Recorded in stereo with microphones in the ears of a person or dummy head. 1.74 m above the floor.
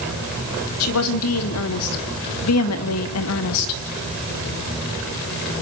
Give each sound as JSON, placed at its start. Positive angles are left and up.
{"t": 0.8, "sound": "a woman speaking", "side_deg": 75, "distance_m": 3.5}